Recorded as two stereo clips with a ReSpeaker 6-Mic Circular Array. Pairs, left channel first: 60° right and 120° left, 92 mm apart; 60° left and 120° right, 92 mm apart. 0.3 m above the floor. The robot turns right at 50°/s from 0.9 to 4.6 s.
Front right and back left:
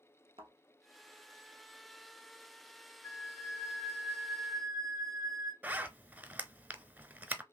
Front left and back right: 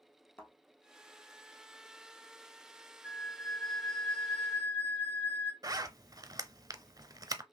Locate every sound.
0.4 s a thud: 130° left, 1.2 m
3.0 s a flute: 50° right, 1.1 m; by 5.5 s 25° left, 1.1 m
5.6 s a zipper: 165° right, 0.6 m